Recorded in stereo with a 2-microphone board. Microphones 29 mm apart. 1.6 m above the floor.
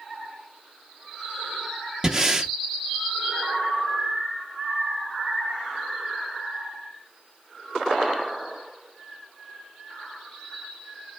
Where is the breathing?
20° right (ahead or behind), 1.2 m.